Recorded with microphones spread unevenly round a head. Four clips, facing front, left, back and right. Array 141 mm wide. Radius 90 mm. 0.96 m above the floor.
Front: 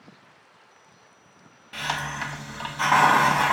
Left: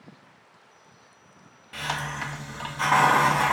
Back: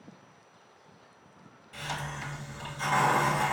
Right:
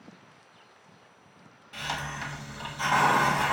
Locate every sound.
1.7 s a hiss: 20° left, 1.1 m